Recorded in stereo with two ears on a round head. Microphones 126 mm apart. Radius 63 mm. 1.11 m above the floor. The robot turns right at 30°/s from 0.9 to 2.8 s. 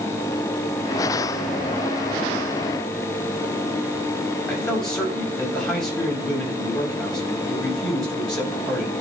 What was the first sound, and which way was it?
A man speaking, 5° left (ahead or behind).